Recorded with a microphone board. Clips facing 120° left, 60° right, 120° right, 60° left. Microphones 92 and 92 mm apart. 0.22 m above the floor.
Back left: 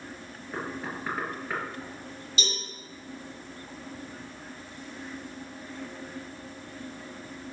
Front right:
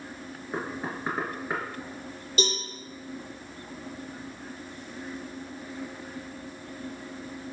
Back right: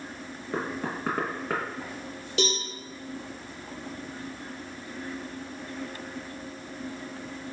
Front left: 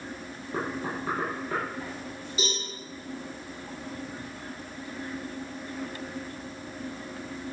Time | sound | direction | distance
0.5 | knocking | 125° right | 3.5 m
2.4 | a cowbell | 105° right | 4.5 m